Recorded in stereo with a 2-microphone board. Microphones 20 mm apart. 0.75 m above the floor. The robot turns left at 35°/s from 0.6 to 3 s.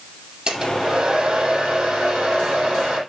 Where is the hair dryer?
40° right, 7.5 m; by 3.0 s 120° right, 7.5 m.